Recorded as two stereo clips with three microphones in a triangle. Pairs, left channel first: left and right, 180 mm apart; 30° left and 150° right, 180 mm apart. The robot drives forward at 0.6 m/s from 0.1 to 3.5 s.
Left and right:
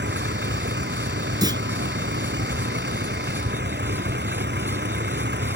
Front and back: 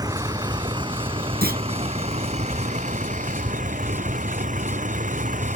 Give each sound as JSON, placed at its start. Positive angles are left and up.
{"t": 0.0, "sound": "a vehicle", "azimuth_deg": -80}
{"t": 1.4, "sound": "a clunk", "azimuth_deg": -155}